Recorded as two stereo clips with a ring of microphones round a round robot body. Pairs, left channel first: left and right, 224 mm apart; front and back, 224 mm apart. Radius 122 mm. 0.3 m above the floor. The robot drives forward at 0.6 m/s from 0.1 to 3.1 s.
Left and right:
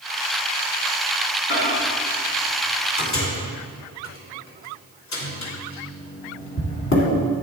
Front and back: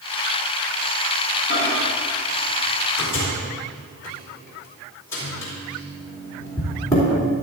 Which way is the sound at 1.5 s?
60° left.